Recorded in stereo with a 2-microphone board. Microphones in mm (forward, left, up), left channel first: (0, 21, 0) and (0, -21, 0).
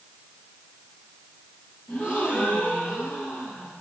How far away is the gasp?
About 7.5 m.